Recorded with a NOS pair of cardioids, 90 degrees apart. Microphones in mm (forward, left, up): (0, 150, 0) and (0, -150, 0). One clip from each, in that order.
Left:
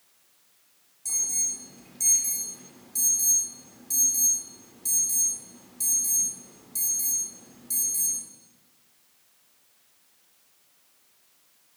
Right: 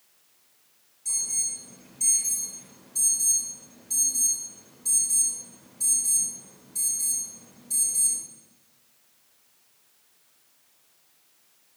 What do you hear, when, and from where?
1.1 s an alarm: 60° left, 7 m